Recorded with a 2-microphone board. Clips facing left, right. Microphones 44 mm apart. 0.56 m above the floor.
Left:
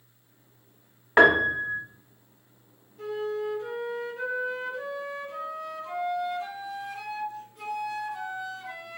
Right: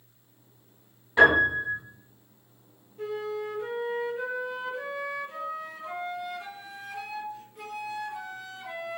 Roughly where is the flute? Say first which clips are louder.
Left 2 dB; right.